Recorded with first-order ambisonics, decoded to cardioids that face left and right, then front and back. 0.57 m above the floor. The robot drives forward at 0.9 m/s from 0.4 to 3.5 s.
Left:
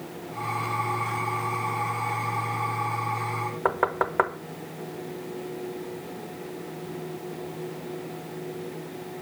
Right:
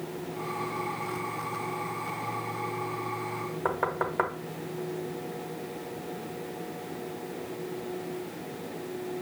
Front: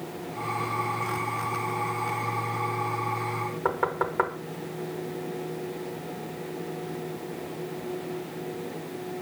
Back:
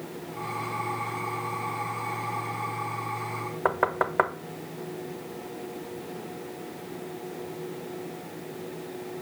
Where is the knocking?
135° left, 0.5 m.